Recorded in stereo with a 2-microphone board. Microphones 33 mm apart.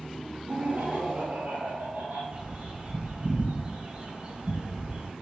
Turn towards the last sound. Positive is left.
turn(degrees=-40)  # may be behind; listen again after turning